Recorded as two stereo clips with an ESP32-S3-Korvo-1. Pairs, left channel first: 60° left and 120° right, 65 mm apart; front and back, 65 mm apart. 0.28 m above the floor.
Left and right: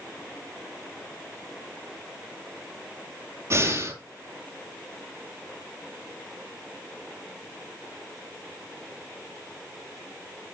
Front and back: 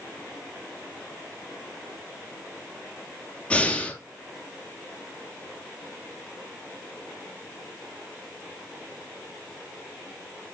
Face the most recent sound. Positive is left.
turn(degrees=-75)